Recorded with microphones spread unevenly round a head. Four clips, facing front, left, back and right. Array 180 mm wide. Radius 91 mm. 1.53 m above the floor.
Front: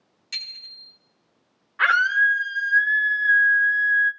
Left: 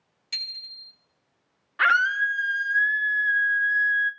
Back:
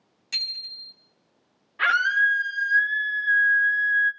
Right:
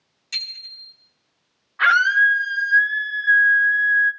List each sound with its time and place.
0.3 s a bicycle bell: 165° left, 3 m
1.8 s a scream: 120° left, 3.5 m